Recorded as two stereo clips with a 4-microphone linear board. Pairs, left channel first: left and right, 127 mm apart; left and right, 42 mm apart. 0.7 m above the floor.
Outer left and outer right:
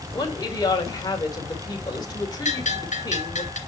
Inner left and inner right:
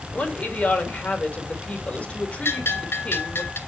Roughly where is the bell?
Left.